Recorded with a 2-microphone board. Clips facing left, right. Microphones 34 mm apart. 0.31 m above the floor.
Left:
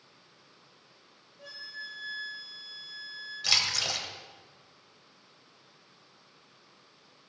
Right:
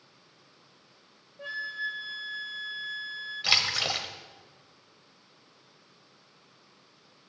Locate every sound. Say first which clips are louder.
1.4 s a flute: right 10 dB; 45° right (ahead or behind), 0.6 m
3.4 s a splash: right 2 dB; 25° right (ahead or behind), 1.0 m